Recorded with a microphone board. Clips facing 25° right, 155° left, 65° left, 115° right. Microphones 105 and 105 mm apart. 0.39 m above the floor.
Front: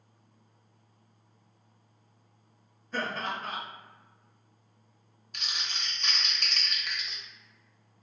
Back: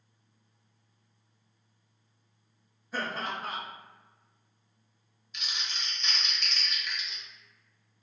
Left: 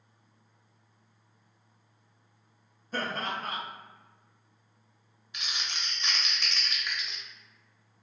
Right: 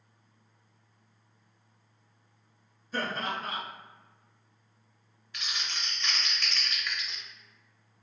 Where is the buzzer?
No buzzer in this recording.